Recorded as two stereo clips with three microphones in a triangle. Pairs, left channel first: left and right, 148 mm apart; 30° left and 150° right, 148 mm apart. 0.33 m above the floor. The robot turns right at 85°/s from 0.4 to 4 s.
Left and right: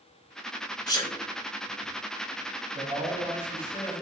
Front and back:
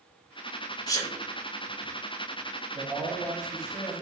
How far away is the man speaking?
About 2.5 m.